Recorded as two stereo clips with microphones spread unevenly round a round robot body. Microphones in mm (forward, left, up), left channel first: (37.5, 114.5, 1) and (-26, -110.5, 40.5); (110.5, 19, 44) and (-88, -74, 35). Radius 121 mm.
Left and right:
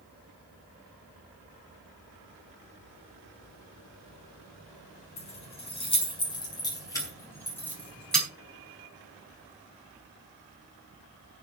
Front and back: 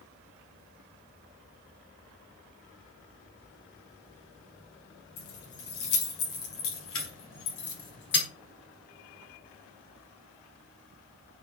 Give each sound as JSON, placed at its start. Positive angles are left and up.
{"t": 5.2, "sound": "keys jangling", "azimuth_deg": 10, "distance_m": 5.5}